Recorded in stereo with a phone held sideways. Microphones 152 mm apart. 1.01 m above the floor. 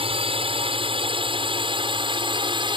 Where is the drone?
35° right (ahead or behind); by 2.8 s 30° right (ahead or behind).